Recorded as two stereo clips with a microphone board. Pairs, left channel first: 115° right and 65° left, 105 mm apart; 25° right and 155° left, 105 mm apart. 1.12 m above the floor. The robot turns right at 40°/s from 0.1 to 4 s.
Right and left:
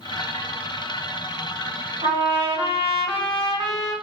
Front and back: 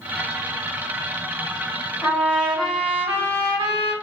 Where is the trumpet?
50° left, 1.5 m; by 3.9 s 125° left, 1.5 m.